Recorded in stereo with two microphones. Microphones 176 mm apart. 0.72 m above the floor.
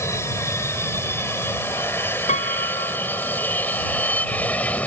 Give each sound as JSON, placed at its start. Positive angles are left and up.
{"t": 0.0, "sound": "an aircraft", "side_deg": 15}
{"t": 2.3, "sound": "a piano", "side_deg": 45}